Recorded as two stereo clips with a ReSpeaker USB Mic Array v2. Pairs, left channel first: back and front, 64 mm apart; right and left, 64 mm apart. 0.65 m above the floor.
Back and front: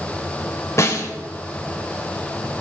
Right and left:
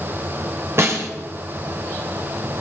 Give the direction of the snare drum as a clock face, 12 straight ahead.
7 o'clock.